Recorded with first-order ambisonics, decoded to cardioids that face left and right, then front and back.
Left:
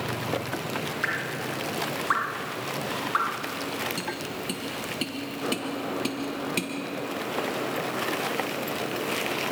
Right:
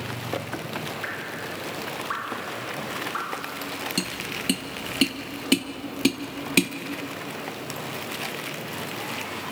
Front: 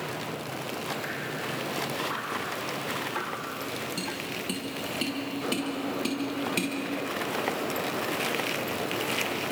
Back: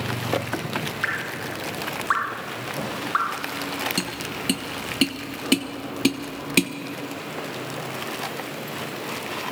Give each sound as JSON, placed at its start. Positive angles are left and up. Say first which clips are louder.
{"t": 1.0, "sound": "dripping", "louder": "left 3 dB, back 6 dB", "azimuth_deg": 155, "distance_m": 1.1}
{"t": 4.0, "sound": "tapping", "louder": "right 3 dB, back 4 dB", "azimuth_deg": -140, "distance_m": 1.1}